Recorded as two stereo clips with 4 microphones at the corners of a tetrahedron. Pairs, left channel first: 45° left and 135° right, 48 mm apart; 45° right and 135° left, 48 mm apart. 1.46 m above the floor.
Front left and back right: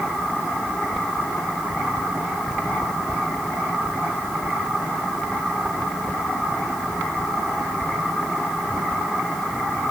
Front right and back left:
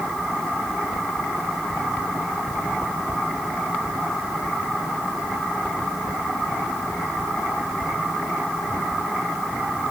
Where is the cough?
I don't hear a cough.